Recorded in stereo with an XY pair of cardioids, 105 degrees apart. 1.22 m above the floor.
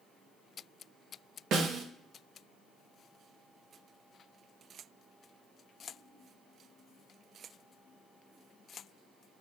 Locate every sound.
1.5 s a snare drum: 65° right, 1.3 m